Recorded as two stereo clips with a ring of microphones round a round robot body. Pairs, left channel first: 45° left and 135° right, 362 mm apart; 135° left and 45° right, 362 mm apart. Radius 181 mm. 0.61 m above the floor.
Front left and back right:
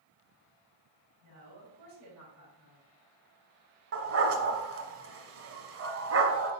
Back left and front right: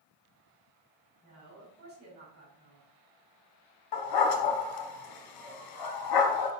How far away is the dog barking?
About 1.5 m.